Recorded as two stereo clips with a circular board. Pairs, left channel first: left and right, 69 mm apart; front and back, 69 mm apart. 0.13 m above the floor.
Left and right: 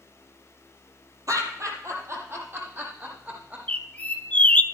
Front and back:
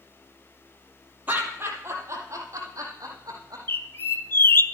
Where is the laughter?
120° right, 3.5 m; by 3.6 s 155° right, 6 m.